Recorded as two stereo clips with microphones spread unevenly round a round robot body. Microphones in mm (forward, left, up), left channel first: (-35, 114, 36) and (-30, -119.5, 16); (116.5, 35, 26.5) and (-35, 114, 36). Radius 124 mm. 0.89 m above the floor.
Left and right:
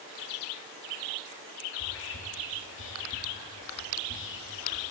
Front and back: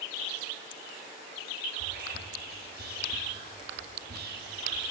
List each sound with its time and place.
1.7 s whispering: 130° left, 1.6 m